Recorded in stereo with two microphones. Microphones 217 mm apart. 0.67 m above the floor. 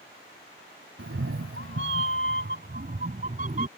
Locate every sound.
1.0 s a cat meowing: 70° right (ahead or behind); by 3.7 s 35° right (ahead or behind)